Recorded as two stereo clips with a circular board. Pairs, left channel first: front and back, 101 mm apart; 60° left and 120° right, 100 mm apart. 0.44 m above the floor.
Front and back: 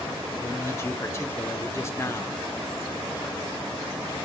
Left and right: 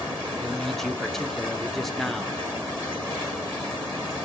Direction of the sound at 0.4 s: 25° right.